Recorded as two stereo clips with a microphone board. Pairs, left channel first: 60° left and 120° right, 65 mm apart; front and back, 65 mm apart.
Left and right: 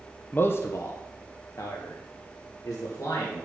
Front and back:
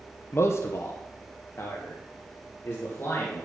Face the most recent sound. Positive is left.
turn(degrees=50)